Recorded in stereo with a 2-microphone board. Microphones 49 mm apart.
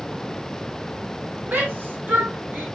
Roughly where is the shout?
Right.